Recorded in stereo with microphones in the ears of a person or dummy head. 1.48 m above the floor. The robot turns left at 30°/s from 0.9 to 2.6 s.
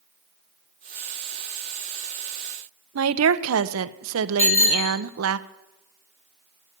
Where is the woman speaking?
85° right, 0.9 m.